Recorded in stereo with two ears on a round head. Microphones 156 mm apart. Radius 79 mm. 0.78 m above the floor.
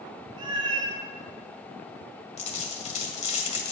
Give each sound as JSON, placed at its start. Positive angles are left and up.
{"t": 0.4, "sound": "a cat meowing", "side_deg": -25, "distance_m": 4.0}
{"t": 2.4, "sound": "a dropped coin", "side_deg": 40, "distance_m": 1.8}